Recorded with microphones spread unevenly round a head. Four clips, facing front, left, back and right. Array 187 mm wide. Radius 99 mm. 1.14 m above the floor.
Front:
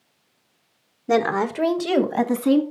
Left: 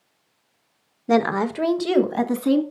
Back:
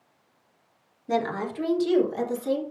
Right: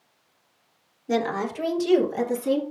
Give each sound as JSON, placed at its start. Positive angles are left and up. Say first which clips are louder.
{"t": 1.1, "sound": "a woman speaking", "louder": "left 5 dB, front 7 dB", "azimuth_deg": 50, "distance_m": 1.0}